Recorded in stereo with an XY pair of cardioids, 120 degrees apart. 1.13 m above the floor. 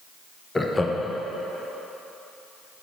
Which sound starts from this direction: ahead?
Laughter, at 0.6 s.